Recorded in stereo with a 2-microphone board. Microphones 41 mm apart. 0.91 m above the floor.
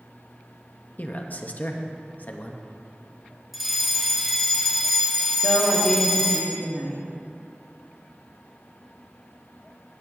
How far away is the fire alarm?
About 1.4 m.